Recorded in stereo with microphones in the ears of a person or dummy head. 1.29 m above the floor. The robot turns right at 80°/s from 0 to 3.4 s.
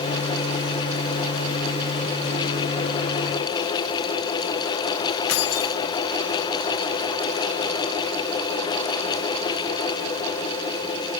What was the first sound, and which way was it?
Keys jangling, 80° left.